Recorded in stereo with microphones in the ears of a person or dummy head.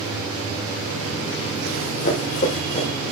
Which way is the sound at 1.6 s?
40° left (ahead or behind).